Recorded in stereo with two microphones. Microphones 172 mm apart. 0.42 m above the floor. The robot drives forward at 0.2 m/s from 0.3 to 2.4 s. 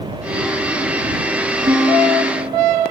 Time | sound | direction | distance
1.7 | a guitar | 40° right (ahead or behind) | 6 m